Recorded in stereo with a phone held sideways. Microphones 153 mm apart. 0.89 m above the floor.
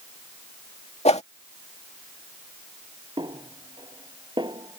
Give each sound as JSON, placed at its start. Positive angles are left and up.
{"t": 1.1, "sound": "a whoosh", "side_deg": 45}
{"t": 3.2, "sound": "a snare drum", "side_deg": -30}